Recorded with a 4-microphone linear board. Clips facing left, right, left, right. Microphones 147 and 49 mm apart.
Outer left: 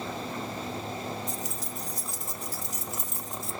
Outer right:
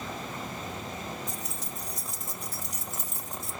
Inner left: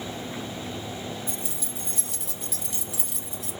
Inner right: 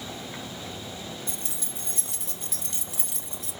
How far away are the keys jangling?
About 0.9 m.